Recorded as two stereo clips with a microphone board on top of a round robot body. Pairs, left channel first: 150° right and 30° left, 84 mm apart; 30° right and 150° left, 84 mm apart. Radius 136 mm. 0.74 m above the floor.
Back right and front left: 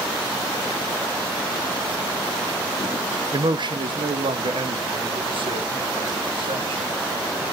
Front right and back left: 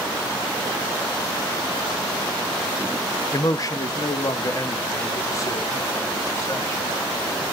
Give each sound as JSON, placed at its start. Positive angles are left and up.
{"t": 3.3, "sound": "a man speaking", "azimuth_deg": 10, "distance_m": 0.7}